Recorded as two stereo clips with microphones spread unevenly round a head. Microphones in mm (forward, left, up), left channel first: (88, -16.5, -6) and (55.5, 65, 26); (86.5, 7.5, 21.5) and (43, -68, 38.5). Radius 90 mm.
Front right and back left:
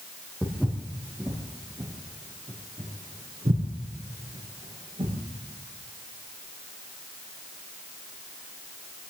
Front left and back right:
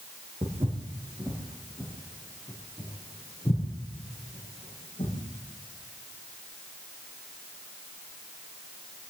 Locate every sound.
0.4 s footsteps: 165° right, 3 m; by 5.2 s 120° left, 6 m